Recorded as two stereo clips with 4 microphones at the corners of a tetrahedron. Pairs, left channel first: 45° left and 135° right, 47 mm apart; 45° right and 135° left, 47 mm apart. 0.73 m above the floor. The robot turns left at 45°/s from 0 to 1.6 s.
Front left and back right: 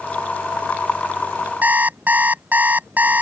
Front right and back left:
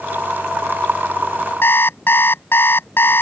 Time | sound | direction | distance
1.6 | an alarm clock | 80° right | ?